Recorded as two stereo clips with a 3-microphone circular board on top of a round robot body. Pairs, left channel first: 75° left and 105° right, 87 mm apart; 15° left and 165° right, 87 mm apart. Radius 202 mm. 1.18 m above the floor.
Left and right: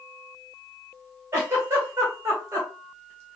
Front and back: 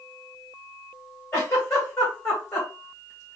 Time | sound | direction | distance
1.3 | a giggle | 45° right | 2.0 m